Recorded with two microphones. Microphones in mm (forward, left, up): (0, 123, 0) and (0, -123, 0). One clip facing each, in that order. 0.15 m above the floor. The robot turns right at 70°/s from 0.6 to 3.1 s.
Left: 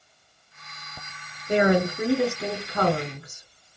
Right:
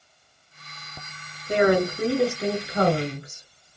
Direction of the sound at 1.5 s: 30° left (ahead or behind).